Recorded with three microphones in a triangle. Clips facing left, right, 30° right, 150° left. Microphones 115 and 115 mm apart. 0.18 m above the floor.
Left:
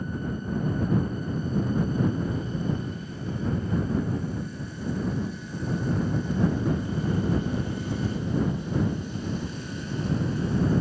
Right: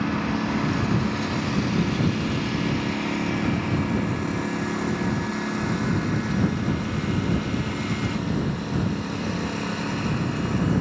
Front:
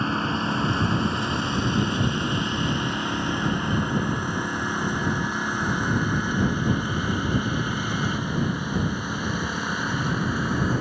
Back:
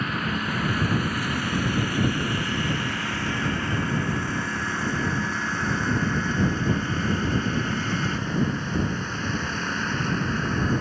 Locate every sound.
0.0 s a lawn mower: 90° right; by 10.8 s 110° right